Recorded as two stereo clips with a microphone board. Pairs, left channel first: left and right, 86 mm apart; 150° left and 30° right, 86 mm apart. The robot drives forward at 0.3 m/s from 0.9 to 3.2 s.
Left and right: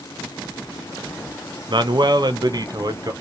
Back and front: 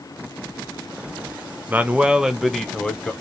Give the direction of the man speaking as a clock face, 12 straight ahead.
3 o'clock.